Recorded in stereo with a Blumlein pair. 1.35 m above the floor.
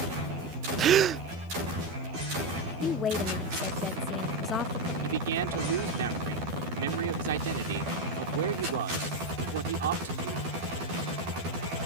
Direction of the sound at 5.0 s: 60° right.